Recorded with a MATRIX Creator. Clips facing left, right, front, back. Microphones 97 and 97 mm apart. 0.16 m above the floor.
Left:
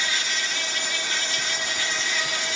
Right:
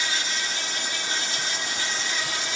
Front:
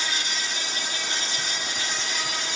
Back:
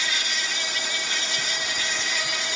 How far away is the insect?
About 2 m.